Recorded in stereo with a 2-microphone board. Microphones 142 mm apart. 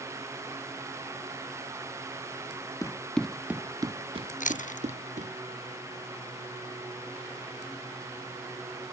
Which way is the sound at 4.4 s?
70° left (ahead or behind).